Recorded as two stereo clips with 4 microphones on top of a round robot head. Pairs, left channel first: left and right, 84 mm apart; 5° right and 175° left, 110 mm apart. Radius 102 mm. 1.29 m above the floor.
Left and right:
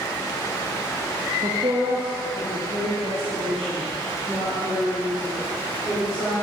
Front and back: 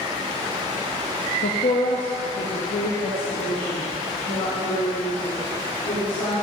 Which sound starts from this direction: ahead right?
A woman speaking, at 1.4 s.